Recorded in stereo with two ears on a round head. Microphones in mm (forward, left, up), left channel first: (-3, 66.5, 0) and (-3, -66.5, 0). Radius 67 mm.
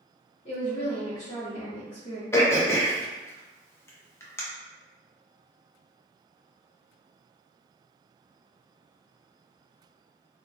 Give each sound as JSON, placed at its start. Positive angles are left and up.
{"t": 0.5, "sound": "a woman speaking", "side_deg": 45, "distance_m": 0.8}
{"t": 2.3, "sound": "throat clearing", "side_deg": 15, "distance_m": 0.5}